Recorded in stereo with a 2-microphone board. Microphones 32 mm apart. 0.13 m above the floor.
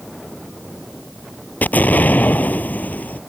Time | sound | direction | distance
1.6 | an explosion | 65° left (ahead or behind) | ?